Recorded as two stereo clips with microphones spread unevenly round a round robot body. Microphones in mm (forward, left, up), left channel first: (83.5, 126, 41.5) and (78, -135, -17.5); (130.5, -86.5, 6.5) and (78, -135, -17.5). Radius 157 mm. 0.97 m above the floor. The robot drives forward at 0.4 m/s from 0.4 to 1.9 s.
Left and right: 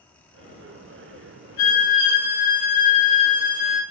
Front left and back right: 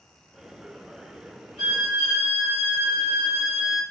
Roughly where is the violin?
Behind left.